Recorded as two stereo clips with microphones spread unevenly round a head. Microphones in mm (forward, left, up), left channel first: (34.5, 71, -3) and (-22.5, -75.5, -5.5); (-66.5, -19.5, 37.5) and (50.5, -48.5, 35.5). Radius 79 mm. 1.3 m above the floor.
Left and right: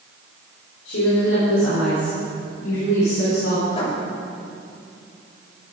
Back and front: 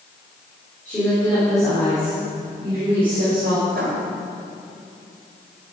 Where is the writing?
15° left, 2 m.